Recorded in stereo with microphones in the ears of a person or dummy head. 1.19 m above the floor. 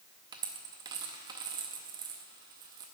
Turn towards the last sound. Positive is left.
turn(degrees=-20)  # may be behind; listen again after turning